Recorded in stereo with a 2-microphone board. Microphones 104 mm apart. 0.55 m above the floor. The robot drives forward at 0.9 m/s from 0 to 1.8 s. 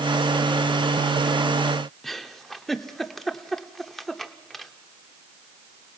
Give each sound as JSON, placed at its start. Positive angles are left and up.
{"t": 2.0, "sound": "a giggle", "side_deg": 0, "distance_m": 1.0}